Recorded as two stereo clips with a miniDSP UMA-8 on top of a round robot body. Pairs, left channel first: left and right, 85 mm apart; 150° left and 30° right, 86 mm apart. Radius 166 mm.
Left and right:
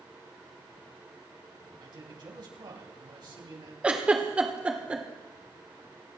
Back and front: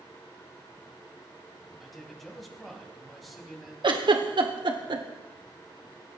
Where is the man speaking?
120° right, 4 m.